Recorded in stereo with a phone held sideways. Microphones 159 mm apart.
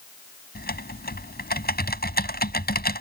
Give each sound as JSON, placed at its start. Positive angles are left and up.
{"t": 0.6, "sound": "typing on a keyboard", "side_deg": 70}